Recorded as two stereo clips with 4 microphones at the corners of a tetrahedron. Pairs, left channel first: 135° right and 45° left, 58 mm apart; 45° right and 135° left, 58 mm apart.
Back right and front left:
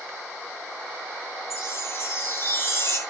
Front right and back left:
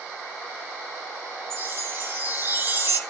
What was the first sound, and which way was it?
A chime, 175° right.